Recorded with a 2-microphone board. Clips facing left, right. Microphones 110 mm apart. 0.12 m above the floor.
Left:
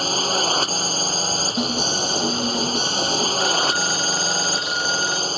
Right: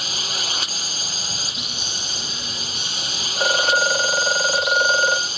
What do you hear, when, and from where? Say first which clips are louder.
0.0 s a drone: left 9 dB; 40° left (ahead or behind)
1.6 s an alarm: left 12 dB; 60° left (ahead or behind)
3.4 s a phone ringing: right 2 dB; 55° right (ahead or behind)